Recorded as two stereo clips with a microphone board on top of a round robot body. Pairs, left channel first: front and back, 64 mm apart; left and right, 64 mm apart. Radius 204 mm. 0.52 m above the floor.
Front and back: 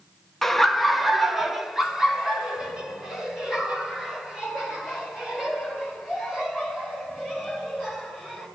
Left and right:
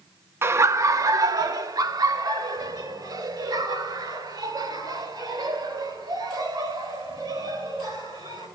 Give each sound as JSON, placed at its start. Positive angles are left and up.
{"t": 0.4, "sound": "laughter", "azimuth_deg": -80, "distance_m": 0.9}